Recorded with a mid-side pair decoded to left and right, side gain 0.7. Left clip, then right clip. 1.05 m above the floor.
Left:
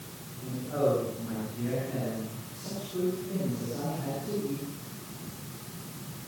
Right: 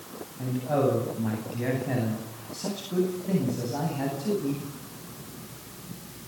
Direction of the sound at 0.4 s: 60° right.